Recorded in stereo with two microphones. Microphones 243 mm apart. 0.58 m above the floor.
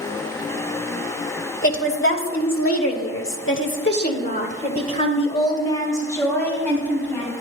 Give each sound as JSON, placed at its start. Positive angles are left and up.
{"t": 1.6, "sound": "a woman speaking", "side_deg": 55, "distance_m": 2.0}